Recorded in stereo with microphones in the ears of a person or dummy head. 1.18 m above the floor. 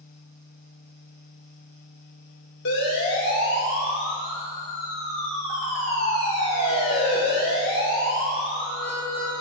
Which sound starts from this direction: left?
A siren, at 2.6 s.